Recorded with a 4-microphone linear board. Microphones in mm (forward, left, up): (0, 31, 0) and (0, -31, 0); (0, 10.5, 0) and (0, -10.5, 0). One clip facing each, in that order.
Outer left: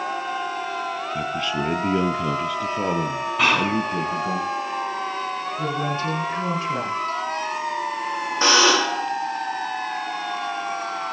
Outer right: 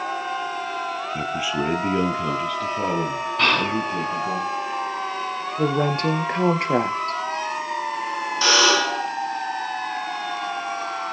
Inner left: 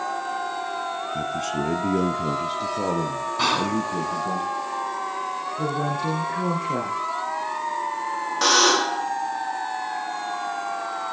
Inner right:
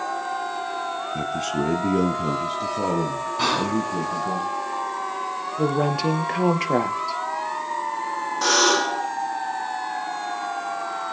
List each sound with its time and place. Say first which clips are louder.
1.1 s a man speaking: outer right 1 dB, inner right 2 dB; 15° right (ahead or behind), 1.1 m; by 4.4 s 15° left (ahead or behind), 4 m
3.4 s whispering: outer left 1 dB, even; 5° left (ahead or behind), 1.3 m
5.6 s a woman speaking: outer right 6 dB, inner right 5 dB; 65° right (ahead or behind), 2.5 m
8.4 s a buzzer: outer left 1 dB, inner left 1 dB; 30° left (ahead or behind), 10 m